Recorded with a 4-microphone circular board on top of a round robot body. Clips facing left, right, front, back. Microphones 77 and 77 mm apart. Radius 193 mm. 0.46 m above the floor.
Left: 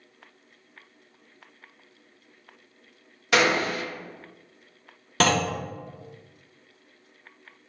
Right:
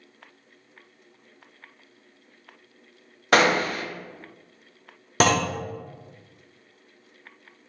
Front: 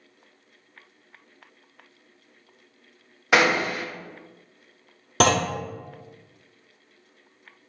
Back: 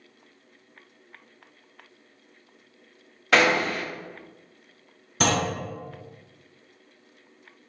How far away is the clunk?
About 0.5 m.